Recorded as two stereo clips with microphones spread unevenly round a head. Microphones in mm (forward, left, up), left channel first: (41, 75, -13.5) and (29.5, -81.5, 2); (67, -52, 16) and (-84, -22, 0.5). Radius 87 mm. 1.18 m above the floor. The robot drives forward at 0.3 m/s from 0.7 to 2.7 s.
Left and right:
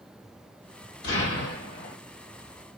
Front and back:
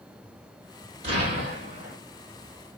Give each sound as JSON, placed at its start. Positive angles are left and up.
{"t": 1.0, "sound": "an explosion", "azimuth_deg": 110, "distance_m": 1.7}